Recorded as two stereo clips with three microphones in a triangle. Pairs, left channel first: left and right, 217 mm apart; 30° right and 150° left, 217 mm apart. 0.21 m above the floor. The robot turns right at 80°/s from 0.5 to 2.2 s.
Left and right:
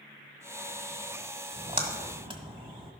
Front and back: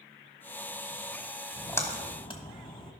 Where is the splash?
110° right, 1.4 m; by 2.9 s 60° right, 1.4 m.